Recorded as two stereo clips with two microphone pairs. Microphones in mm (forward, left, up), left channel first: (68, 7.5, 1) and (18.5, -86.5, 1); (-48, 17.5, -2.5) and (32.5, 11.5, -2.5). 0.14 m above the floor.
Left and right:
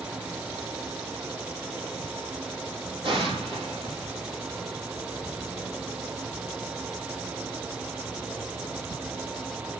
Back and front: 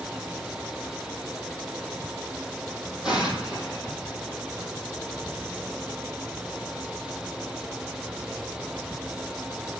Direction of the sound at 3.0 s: 85° right.